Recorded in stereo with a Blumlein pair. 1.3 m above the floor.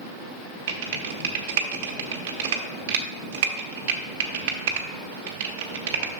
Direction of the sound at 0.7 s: 50° right.